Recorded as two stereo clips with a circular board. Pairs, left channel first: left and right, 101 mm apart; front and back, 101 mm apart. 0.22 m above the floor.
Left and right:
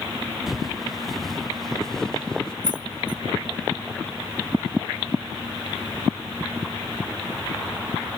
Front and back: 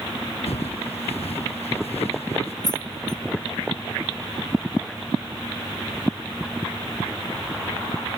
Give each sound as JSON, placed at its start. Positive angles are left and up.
{"t": 0.5, "sound": "footsteps", "azimuth_deg": 0}
{"t": 2.6, "sound": "keys jangling", "azimuth_deg": -50}